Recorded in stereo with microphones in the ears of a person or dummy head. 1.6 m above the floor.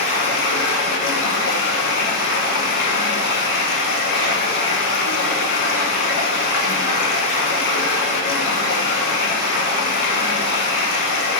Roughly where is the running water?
Left.